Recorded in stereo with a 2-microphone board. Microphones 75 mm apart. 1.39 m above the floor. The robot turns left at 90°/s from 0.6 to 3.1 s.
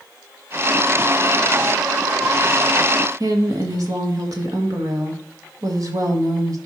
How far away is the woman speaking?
About 1.8 m.